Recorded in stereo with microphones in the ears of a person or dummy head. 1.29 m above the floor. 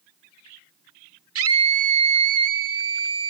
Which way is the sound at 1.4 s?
70° right (ahead or behind).